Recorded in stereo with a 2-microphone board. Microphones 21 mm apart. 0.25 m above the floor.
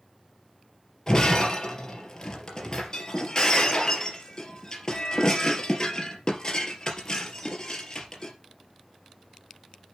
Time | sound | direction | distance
1.1 | breaking glass | 35° left (ahead or behind) | 3 m